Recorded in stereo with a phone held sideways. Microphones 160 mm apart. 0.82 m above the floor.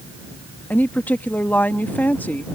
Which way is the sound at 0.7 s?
10° left (ahead or behind).